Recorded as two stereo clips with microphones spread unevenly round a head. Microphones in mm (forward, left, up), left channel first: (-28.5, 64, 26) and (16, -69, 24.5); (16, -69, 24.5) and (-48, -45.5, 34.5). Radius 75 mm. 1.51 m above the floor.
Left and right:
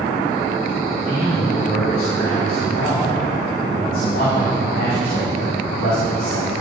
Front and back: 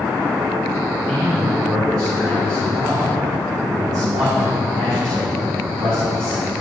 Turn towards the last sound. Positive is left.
turn(degrees=125)